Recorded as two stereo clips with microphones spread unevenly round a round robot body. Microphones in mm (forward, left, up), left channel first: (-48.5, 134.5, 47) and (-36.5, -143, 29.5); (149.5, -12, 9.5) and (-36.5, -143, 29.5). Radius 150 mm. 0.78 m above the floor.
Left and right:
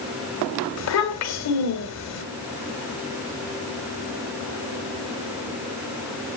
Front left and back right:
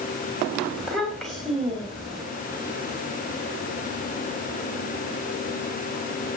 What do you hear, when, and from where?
0.8 s a child speaking: 125° left, 2.5 m